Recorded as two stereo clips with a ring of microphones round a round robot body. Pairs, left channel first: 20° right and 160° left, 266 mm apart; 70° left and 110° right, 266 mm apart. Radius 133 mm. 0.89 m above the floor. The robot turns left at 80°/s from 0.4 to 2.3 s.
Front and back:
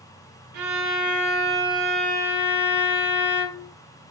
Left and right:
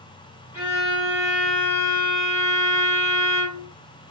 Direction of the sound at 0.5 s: 165° left.